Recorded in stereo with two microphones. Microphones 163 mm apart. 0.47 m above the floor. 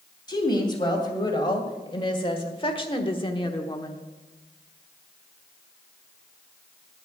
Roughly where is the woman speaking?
Left.